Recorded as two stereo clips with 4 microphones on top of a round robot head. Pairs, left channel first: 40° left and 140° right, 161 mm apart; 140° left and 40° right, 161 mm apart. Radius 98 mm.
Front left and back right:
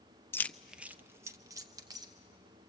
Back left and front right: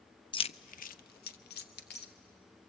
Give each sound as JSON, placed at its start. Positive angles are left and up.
{"t": 0.3, "sound": "keys jangling", "azimuth_deg": 105, "distance_m": 0.5}